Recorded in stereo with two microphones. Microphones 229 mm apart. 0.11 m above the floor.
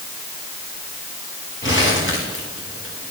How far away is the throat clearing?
No throat clearing in this recording.